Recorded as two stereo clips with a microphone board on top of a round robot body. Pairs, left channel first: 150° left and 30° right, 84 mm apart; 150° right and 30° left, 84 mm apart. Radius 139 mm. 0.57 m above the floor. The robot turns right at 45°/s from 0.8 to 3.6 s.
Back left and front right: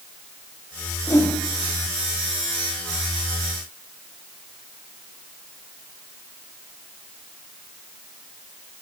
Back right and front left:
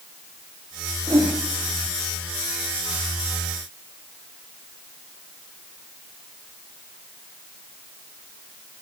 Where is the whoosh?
85° left, 9 m; by 1.3 s 100° left, 9 m.